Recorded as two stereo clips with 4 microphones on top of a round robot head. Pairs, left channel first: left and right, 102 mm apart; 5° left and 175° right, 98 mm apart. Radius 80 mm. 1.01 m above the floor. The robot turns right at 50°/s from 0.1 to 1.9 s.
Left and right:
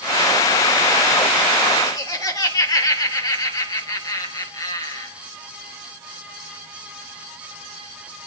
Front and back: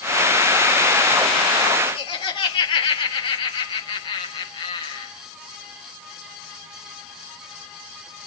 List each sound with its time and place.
1.9 s laughter: 35° left, 4 m